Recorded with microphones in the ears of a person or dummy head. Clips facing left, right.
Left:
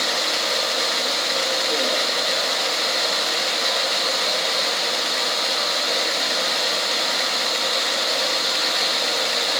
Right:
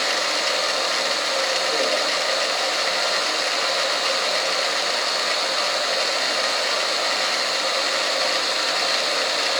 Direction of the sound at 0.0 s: 55° left (ahead or behind).